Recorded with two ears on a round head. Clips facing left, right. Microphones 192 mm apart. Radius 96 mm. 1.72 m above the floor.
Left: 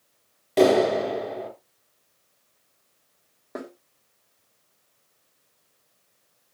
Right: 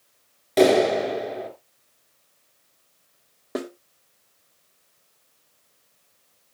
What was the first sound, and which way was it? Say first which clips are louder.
A clap: right 1 dB; centre (ahead or behind).